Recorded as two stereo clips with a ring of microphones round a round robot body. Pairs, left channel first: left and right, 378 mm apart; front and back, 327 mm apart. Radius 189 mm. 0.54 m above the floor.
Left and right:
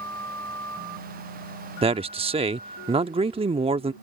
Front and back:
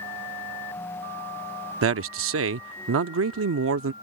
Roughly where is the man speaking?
Behind.